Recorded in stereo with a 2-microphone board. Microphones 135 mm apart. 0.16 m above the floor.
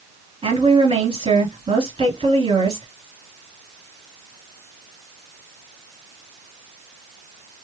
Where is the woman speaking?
45° right (ahead or behind), 2.5 m.